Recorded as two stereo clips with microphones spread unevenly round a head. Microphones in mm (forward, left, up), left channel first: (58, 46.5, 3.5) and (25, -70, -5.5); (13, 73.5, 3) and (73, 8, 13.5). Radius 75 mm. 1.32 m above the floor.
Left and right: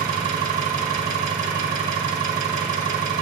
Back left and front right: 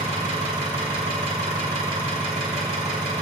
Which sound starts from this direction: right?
An engine running, at 0.0 s.